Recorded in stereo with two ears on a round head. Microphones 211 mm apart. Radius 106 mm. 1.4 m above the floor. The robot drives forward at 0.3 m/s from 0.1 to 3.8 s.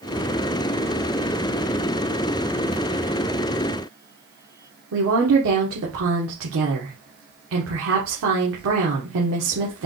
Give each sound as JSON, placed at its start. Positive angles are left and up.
{"t": 4.9, "sound": "a woman speaking", "side_deg": -65, "distance_m": 1.4}